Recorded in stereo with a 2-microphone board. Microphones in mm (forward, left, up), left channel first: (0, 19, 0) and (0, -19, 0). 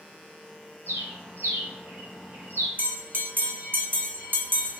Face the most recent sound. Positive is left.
turn(degrees=-65)  # may be behind; listen again after turning